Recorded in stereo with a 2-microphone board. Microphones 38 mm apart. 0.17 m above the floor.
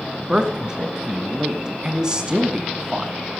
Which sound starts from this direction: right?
A man speaking, at 0.3 s.